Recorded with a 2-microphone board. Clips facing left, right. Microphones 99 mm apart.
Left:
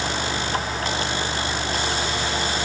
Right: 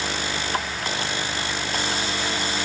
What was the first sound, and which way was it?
Only background noise.